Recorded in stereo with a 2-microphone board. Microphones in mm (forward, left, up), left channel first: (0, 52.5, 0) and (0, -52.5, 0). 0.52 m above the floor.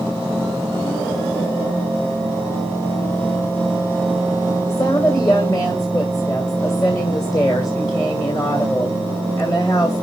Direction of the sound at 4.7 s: 40° left (ahead or behind).